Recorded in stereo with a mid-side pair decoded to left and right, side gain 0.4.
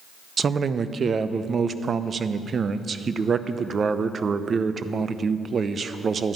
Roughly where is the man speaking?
Ahead right.